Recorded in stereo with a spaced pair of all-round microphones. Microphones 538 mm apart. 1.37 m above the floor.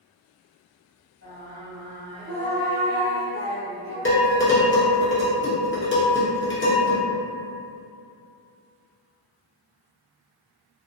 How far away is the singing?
About 1.4 m.